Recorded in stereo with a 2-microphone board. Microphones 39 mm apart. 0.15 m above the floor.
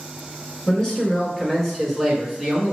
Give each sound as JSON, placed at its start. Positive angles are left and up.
{"t": 0.7, "sound": "a man speaking", "side_deg": 20, "distance_m": 1.9}